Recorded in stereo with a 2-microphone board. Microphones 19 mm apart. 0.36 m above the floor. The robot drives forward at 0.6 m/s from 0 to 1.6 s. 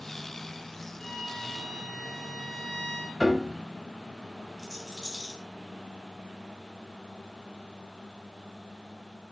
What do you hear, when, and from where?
1.0 s a violin: 25° left (ahead or behind), 2 m; by 3.1 s 30° left (ahead or behind), 1.8 m
3.2 s a piano: centre (ahead or behind), 0.7 m
4.6 s a rattle: 15° left (ahead or behind), 2.5 m